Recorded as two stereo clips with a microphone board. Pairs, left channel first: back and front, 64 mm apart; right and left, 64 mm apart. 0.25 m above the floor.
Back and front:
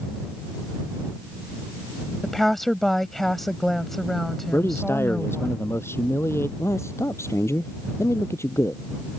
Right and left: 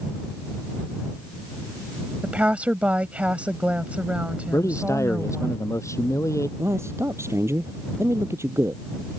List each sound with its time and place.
2.2 s a woman speaking: 100° left
4.5 s a man speaking: 130° right
6.6 s a man speaking: 135° left